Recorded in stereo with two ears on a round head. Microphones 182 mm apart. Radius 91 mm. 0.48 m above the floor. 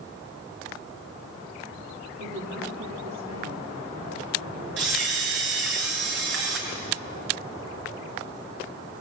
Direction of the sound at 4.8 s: 65° right (ahead or behind).